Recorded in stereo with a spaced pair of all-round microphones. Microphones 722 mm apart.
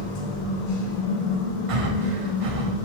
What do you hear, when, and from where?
0.0 s a machine running: 85° left, 0.7 m
1.7 s breathing: 55° right (ahead or behind), 0.5 m